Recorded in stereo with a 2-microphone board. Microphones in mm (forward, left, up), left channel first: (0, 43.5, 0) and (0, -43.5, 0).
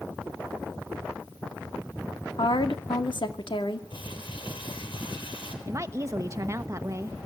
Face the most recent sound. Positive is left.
turn(degrees=-35)  # may be behind; listen again after turning